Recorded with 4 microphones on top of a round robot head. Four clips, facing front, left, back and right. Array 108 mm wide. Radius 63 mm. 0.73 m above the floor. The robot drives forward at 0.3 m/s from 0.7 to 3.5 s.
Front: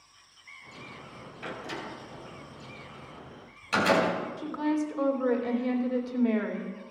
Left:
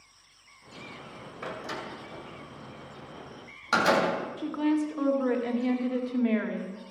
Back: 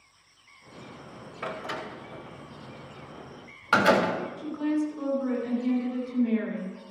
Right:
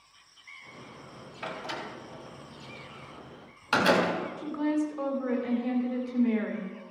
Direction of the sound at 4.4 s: 55° left.